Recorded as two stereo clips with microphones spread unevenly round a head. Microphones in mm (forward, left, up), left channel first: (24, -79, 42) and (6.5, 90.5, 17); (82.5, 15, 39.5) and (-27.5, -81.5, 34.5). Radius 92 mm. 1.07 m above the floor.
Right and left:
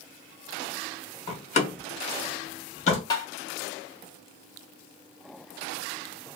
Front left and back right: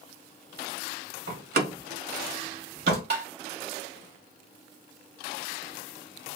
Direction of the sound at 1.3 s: 140° right.